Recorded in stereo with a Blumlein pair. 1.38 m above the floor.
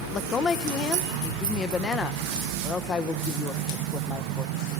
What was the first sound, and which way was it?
A woman speaking, 20° left.